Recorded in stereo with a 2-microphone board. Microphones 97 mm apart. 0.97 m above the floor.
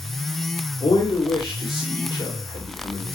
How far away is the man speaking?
About 3 m.